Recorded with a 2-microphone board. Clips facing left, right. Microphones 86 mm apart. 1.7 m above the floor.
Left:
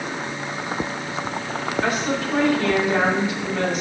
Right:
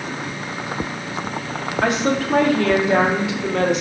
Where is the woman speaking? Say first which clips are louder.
Right 5 dB; 85° right, 1.8 m.